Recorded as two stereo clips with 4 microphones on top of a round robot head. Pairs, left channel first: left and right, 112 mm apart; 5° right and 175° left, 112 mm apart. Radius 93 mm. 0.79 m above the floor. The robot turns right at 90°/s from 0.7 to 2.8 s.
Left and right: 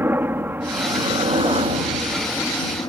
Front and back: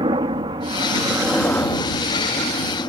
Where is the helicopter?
155° right; by 2.9 s 35° left.